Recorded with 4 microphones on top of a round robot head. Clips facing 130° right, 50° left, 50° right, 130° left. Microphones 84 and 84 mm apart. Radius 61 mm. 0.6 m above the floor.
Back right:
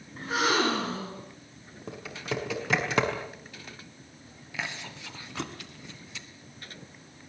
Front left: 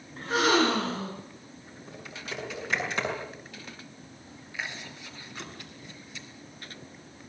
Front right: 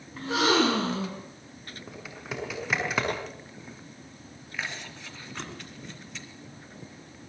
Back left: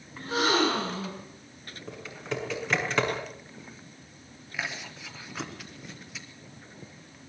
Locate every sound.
0.2 s a gasp: 40° right, 8.5 m
1.9 s typing on a keyboard: 135° right, 5.5 m
4.5 s chewing: 145° right, 2.5 m